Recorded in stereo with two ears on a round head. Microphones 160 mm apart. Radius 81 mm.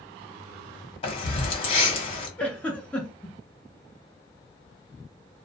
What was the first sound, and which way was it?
Keys jangling, 30° left (ahead or behind).